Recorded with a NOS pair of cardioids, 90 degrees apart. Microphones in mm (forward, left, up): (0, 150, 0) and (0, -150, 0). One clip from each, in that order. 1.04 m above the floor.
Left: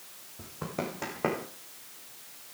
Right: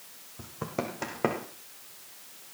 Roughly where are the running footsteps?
Ahead right.